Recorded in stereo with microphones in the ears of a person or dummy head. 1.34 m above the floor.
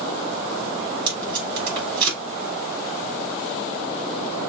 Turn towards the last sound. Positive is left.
turn(degrees=-30)  # may be behind; listen again after turning